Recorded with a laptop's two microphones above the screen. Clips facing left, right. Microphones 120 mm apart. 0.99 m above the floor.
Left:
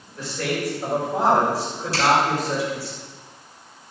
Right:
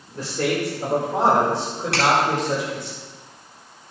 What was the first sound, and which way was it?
A man speaking, 40° right (ahead or behind).